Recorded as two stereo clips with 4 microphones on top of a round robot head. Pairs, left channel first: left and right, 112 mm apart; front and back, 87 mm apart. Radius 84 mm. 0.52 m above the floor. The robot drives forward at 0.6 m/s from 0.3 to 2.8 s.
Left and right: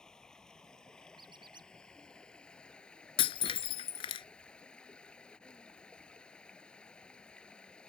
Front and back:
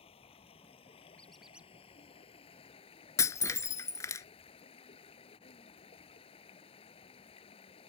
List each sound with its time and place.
0.0 s running water: 5° left; by 7.9 s 10° left
1.2 s a squeak: 70° right; by 1.7 s 115° right
3.2 s breaking glass: 50° left